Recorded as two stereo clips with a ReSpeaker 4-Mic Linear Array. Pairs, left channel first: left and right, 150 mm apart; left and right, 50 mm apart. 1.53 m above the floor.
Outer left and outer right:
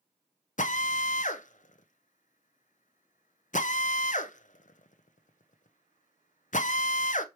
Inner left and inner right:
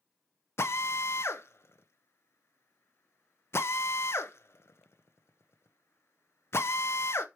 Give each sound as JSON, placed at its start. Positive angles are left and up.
{"t": 0.6, "sound": "a drill", "side_deg": 55, "distance_m": 0.7}